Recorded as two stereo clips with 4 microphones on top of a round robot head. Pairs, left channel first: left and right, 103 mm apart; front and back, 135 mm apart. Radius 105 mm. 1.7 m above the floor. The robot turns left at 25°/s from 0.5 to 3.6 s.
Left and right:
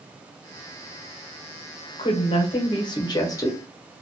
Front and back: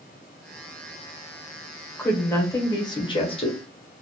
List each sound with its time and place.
2.0 s a woman speaking: 75° left, 0.7 m; by 3.6 s 35° left, 0.7 m